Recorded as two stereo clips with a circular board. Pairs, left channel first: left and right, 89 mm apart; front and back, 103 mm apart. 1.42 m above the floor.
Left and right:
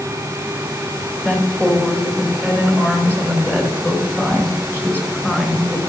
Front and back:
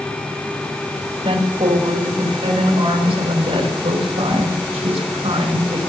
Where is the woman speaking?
165° left, 3 m; by 5.8 s 160° left, 6 m.